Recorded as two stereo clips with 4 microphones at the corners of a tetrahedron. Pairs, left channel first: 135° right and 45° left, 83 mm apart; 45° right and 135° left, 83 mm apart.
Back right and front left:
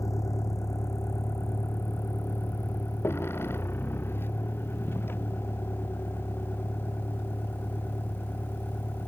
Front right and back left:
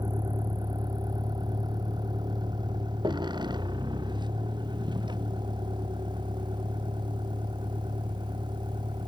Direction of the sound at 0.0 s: 175° left.